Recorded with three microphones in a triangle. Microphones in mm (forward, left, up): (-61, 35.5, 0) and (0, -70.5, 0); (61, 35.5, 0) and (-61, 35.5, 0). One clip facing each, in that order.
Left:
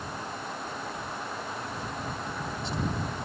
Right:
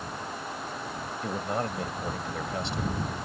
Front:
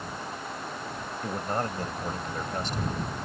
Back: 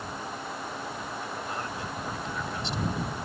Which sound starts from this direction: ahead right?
A man speaking, at 1.2 s.